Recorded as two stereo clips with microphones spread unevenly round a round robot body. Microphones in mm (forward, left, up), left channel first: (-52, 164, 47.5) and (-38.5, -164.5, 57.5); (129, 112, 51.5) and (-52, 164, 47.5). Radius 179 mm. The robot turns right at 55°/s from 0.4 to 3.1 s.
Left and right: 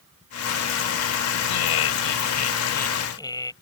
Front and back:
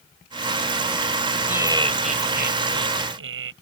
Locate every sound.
1.5 s laughter: 80° left; by 3.5 s 170° left